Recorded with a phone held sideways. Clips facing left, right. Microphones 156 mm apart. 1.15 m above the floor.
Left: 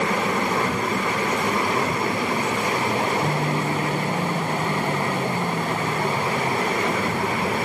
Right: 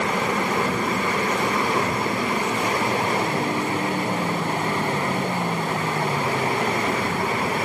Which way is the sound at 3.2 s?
85° left.